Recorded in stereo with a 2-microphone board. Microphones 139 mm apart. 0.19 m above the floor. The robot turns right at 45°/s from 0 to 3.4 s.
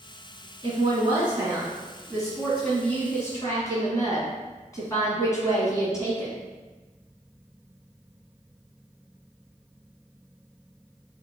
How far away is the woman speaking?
About 1.3 m.